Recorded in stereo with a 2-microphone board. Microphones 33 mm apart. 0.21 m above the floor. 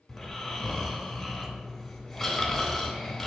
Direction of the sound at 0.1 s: 5° left (ahead or behind).